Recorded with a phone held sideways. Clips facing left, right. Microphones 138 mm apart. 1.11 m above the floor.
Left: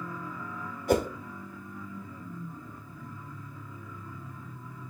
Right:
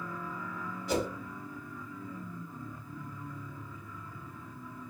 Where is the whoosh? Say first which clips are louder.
Left 6 dB; 60° left (ahead or behind), 0.8 m.